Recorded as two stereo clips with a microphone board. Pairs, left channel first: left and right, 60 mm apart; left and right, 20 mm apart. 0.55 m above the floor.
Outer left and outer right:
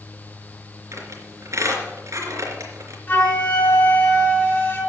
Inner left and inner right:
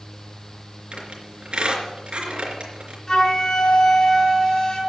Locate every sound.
0.9 s a squeak: 65° right (ahead or behind), 3.5 m
3.1 s a flute: 35° left (ahead or behind), 5.5 m